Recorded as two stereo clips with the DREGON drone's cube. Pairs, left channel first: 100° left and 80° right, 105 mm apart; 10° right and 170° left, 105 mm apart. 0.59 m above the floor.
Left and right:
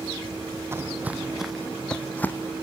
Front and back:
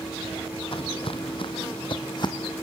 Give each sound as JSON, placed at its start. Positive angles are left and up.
{"t": 0.7, "sound": "footsteps", "azimuth_deg": -15, "distance_m": 1.2}